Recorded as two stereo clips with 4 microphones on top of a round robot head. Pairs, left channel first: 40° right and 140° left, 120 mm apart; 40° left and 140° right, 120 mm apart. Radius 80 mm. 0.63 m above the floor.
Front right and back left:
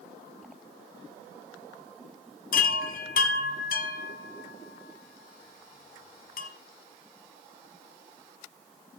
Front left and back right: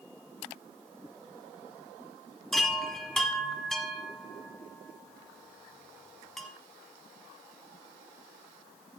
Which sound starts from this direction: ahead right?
A chime, at 2.5 s.